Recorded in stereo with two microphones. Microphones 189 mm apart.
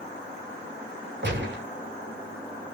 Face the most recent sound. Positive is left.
turn(degrees=-60)  # may be behind; listen again after turning